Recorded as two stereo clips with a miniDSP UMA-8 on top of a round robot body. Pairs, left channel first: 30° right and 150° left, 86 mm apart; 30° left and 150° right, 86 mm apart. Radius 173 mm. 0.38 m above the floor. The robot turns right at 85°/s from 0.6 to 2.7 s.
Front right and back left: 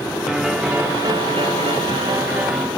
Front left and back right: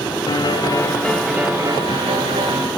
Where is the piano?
70° left, 1.0 m; by 2.7 s 110° right, 1.0 m.